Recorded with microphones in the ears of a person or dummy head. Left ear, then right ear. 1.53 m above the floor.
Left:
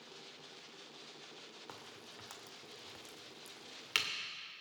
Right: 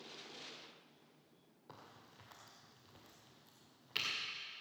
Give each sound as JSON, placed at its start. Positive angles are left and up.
{"t": 1.7, "sound": "a crack", "side_deg": 50, "distance_m": 2.0}